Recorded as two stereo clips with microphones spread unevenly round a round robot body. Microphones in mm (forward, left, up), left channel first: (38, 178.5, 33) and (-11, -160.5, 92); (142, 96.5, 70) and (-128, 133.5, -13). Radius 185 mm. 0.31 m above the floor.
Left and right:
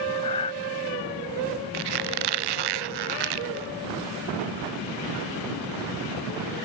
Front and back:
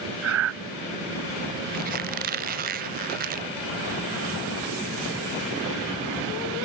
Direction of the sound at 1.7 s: 120° right.